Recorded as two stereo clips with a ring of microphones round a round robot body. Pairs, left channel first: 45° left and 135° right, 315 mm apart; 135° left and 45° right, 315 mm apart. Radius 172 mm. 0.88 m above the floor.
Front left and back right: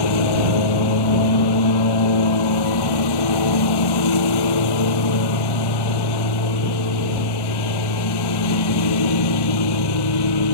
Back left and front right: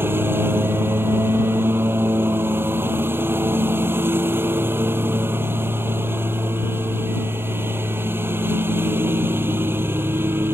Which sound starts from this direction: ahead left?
A lawn mower, at 0.0 s.